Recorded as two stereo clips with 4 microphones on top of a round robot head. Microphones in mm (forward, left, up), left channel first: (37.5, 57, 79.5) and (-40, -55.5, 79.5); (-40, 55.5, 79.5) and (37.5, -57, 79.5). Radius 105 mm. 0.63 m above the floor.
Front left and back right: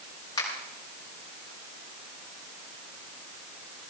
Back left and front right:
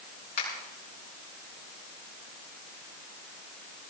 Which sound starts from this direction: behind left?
A finger snap, at 0.4 s.